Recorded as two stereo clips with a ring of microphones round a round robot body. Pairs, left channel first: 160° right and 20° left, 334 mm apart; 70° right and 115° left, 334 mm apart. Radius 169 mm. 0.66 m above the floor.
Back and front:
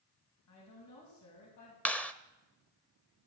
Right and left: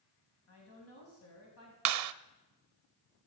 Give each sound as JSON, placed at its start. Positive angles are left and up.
{"t": 0.5, "sound": "a woman speaking", "azimuth_deg": -115, "distance_m": 4.5}
{"t": 1.9, "sound": "a clap", "azimuth_deg": 115, "distance_m": 0.7}